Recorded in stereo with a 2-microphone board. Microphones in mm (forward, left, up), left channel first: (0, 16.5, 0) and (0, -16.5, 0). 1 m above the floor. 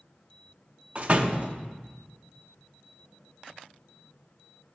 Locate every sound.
0.9 s a door slam: 40° right (ahead or behind), 0.9 m